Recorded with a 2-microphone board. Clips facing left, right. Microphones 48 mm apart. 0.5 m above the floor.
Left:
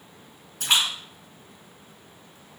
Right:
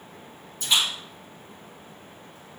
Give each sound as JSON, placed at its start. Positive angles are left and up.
{"t": 0.6, "sound": "a splash", "side_deg": 65, "distance_m": 2.5}